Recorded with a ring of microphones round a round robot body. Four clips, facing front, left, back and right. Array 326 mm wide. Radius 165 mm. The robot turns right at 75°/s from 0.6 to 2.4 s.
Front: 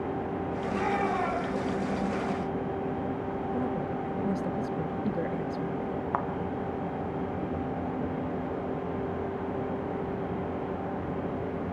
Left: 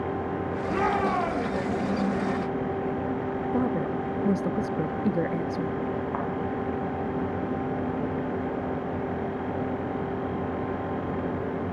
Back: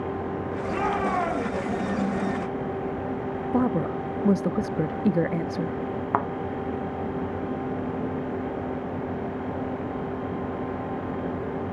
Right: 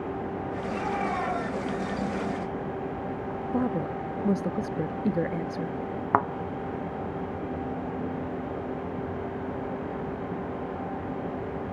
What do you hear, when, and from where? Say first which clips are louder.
0.7 s a shout: left 5 dB, back 3 dB; 110° left, 6 m; by 1.8 s 165° right, 6 m
3.5 s a woman speaking: even, back 10 dB; straight behind, 0.6 m
6.1 s a thud: right 6 dB, back 6 dB; 120° right, 1.4 m